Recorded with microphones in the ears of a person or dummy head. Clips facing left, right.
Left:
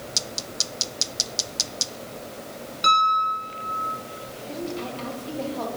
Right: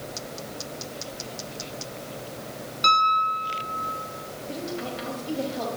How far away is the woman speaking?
About 6 m.